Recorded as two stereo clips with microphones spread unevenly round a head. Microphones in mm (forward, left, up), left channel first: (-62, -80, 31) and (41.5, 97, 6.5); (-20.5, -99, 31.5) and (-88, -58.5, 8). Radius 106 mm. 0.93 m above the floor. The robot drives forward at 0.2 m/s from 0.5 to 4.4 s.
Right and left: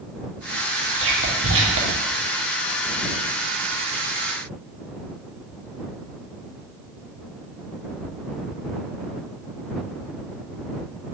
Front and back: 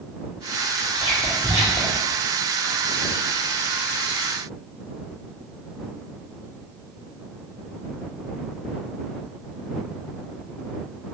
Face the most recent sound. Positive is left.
turn(degrees=80)